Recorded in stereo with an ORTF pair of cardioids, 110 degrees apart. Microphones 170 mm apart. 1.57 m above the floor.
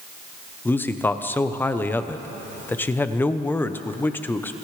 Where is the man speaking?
10° left, 0.9 m.